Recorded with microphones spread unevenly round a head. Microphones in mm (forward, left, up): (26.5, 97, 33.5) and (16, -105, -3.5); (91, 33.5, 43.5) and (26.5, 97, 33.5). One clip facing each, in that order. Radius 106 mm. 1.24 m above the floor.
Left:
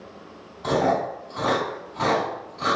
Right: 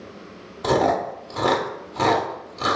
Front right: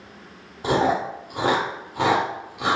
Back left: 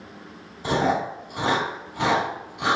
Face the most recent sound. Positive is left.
turn(degrees=-80)